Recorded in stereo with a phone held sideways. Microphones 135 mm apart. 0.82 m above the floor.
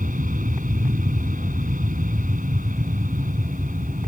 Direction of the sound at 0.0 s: 80° right.